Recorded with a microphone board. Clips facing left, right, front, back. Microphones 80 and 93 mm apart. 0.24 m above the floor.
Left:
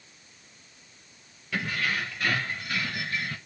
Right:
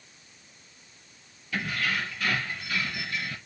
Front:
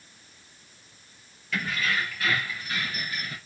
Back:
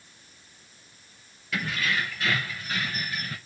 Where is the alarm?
I don't hear an alarm.